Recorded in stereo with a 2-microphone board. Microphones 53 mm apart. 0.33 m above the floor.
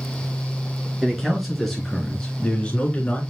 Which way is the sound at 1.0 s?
5° right (ahead or behind).